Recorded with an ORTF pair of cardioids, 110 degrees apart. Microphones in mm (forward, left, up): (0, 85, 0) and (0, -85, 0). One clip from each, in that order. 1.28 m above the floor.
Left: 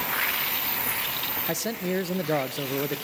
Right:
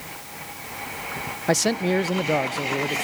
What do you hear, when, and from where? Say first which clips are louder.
1.5 s a man speaking: right 11 dB; 45° right, 0.6 m; by 3.0 s straight ahead, 1.2 m